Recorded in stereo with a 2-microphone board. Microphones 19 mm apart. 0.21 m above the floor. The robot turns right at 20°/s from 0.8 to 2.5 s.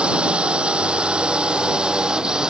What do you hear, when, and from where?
0.0 s a drone: 80° right; by 2.5 s 50° right